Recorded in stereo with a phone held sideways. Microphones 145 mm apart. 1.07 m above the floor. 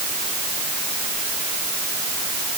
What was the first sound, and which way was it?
Only background noise.